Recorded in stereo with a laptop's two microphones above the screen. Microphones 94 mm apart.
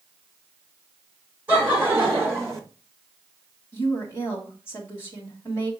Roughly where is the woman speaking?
Left.